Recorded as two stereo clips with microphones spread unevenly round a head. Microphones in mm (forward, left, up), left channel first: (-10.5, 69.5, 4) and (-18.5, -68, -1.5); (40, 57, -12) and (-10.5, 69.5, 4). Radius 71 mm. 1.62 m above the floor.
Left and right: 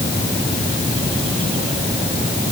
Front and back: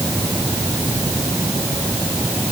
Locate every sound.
Only background noise.